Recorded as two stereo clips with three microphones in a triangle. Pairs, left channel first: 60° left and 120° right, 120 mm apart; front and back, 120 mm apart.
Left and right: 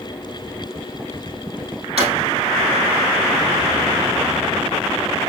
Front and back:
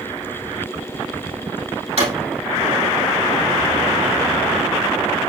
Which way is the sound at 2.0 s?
150° right.